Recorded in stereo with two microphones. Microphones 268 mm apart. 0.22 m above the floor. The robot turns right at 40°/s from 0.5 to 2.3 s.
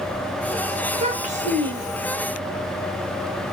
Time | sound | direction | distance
0.9 | a child speaking | 25° right (ahead or behind) | 0.8 m